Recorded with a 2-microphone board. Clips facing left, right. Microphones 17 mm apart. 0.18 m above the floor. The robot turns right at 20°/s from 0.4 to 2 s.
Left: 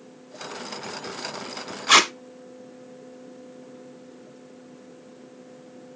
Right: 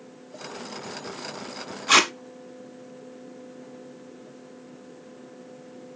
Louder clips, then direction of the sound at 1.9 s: Left 2 dB; 20° left (ahead or behind).